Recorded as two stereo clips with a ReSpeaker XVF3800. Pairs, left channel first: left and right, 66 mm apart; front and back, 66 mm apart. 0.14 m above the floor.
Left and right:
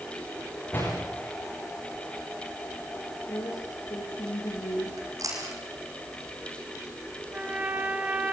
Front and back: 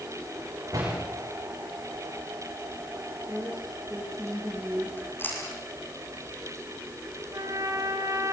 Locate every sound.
0.7 s a door slam: 150° left, 10 m
3.3 s a woman speaking: 110° left, 8 m
5.0 s chewing: 55° right, 7.5 m
7.3 s a trumpet: 155° right, 1.8 m